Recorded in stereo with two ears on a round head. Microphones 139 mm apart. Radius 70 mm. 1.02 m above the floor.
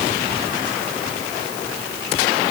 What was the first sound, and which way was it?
Only background noise.